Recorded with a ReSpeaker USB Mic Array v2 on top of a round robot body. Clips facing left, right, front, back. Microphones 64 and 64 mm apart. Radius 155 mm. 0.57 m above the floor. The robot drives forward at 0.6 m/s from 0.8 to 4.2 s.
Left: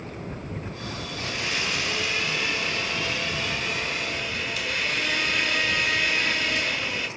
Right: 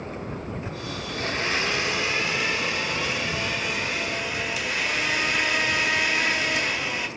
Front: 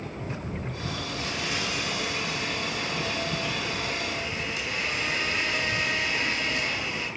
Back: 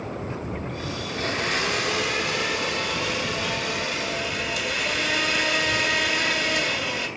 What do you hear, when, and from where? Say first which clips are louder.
1.1 s a blender: right 5 dB, back 8 dB; 135° right, 0.8 m; by 7.1 s 170° right, 2.5 m